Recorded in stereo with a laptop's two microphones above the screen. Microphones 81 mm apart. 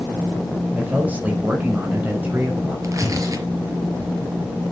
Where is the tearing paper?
45° right (ahead or behind), 4.5 m.